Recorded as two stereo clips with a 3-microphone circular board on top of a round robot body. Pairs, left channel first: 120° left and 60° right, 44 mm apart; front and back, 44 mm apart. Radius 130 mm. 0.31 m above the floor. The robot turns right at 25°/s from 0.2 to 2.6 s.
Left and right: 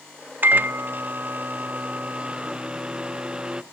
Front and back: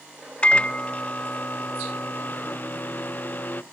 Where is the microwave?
50° right, 0.8 m; by 3.6 s 5° left, 0.8 m.